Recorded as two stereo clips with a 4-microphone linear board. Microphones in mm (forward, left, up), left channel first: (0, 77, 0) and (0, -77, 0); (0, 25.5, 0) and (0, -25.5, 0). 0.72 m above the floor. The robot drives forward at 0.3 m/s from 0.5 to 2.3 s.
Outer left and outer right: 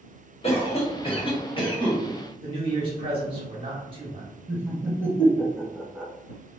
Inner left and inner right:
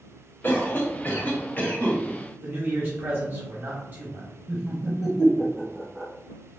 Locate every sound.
0.4 s a cough: 40° left (ahead or behind), 1.2 m; by 2.0 s 30° left (ahead or behind), 1.5 m
2.4 s a man speaking: 35° right (ahead or behind), 0.7 m
4.5 s laughter: 15° right (ahead or behind), 0.8 m